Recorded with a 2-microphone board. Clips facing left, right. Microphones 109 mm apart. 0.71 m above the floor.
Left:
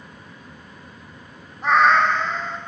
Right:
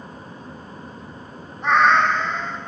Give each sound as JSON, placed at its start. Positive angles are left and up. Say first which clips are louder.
{"t": 1.6, "sound": "a cat meowing", "louder": "even", "side_deg": 5, "distance_m": 0.5}